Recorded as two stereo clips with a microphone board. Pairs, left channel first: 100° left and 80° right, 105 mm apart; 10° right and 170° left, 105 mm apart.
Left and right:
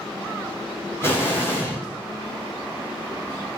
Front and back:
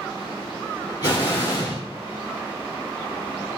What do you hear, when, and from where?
1.0 s an explosion: 35° left, 4.5 m